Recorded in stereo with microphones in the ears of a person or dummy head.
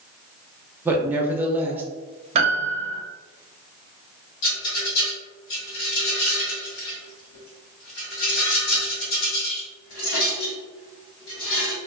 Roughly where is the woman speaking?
Centre.